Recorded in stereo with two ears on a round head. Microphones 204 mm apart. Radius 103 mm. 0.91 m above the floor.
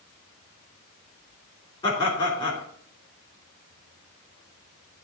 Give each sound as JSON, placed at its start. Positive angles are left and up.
{"t": 1.8, "sound": "laughter", "side_deg": 20, "distance_m": 3.0}